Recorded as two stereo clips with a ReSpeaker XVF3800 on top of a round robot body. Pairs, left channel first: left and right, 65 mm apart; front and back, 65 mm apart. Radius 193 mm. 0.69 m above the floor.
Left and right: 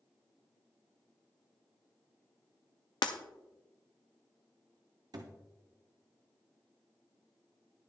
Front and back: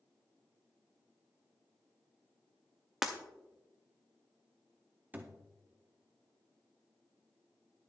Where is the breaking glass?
95° left, 0.5 m.